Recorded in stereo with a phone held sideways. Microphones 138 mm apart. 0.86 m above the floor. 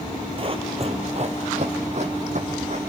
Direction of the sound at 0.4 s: 40° right (ahead or behind).